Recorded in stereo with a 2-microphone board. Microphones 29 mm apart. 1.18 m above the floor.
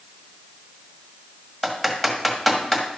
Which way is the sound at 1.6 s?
Centre (ahead or behind).